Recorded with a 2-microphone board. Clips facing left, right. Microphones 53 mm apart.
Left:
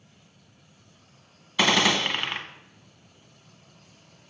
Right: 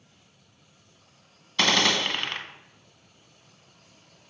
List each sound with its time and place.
1.6 s a gunshot: 10° left (ahead or behind), 0.8 m